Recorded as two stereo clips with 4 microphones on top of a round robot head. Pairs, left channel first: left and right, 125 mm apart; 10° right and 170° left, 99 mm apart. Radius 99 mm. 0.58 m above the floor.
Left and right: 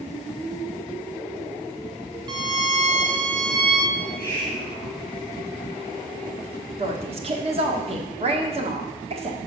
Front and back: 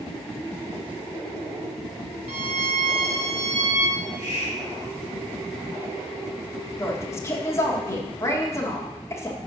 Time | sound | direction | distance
2.3 | a violin | 145° right | 0.6 m
4.0 | a hiss | 30° right | 4 m
6.8 | a woman speaking | 65° right | 1.1 m